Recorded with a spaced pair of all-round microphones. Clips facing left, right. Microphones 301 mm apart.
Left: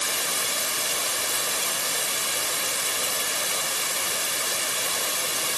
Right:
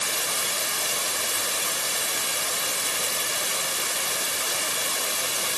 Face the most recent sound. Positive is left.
No sound to turn to.